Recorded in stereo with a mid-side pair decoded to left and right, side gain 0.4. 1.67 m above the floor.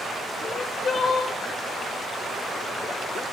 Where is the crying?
50° left, 1.1 m.